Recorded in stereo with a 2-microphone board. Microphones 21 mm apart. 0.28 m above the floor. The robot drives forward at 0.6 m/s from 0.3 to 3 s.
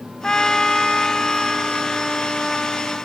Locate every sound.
0.2 s a trumpet: 35° left (ahead or behind), 0.7 m; by 3.0 s 10° left (ahead or behind), 2 m